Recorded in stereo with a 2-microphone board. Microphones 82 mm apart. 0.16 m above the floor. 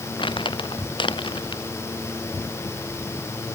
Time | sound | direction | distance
0.2 | crumpling | 75° left (ahead or behind) | ?